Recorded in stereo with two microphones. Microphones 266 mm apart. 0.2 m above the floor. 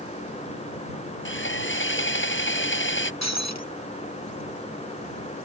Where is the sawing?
45° left (ahead or behind).